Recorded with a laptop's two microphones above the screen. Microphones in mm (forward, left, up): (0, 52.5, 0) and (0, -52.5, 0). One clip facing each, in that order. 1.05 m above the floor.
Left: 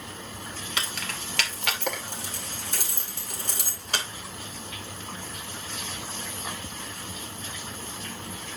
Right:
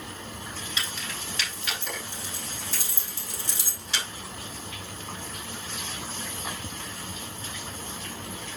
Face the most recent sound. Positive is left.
turn(degrees=50)  # may be behind; listen again after turning